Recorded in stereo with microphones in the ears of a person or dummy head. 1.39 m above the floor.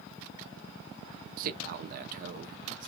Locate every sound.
1.4 s a man speaking: 50° right (ahead or behind), 0.6 m